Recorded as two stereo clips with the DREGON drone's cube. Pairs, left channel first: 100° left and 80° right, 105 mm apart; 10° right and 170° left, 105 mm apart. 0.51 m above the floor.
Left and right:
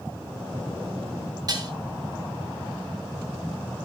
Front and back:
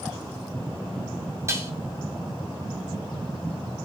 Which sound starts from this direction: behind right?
Dishes clattering, at 1.5 s.